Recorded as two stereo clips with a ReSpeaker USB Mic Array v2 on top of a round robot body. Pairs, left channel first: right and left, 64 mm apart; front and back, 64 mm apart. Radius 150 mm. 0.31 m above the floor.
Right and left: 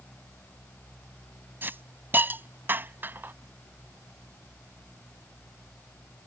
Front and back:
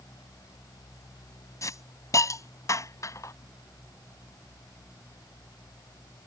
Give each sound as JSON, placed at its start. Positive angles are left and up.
{"t": 1.6, "sound": "a hiss", "azimuth_deg": 30}